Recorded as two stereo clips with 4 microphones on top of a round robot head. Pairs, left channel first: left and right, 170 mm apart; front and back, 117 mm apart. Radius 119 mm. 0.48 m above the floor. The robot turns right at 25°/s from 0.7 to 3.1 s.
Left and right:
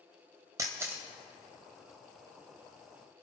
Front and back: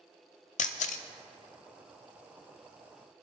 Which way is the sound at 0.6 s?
15° right.